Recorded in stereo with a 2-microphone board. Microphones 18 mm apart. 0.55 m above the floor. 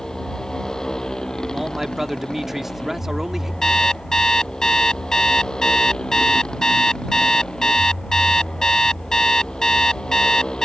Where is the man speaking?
20° right (ahead or behind).